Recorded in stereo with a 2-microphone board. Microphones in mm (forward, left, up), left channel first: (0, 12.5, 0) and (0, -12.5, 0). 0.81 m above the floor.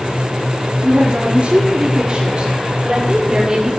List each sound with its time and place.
0.8 s a woman speaking: 65° right (ahead or behind), 1.9 m; by 3.7 s 20° right (ahead or behind), 3 m